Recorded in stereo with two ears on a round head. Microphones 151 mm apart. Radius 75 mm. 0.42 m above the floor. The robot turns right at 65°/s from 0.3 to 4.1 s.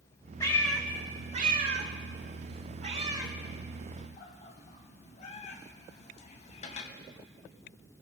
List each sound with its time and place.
0.4 s a cat meowing: 20° left (ahead or behind), 0.8 m; by 6.9 s 40° left (ahead or behind), 0.8 m